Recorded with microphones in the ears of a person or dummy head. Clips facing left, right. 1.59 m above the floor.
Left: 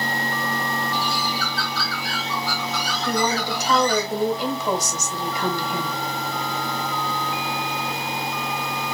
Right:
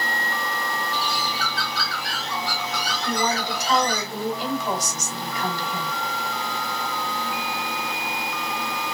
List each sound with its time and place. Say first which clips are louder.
0.9 s a bird: left 2 dB; 40° right (ahead or behind), 2.5 m
3.0 s a woman speaking: left 2 dB; 65° left (ahead or behind), 3 m